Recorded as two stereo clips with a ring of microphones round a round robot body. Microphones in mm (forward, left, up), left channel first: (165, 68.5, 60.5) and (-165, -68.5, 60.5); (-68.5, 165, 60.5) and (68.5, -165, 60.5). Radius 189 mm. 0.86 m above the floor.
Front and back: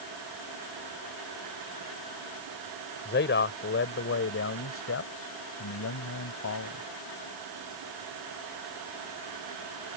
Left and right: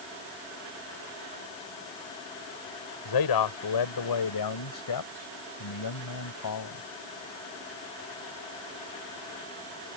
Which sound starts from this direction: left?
A man speaking, at 3.0 s.